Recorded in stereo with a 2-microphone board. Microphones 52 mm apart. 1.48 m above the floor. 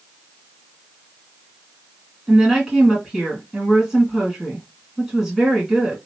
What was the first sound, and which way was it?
A woman speaking, 5° right (ahead or behind).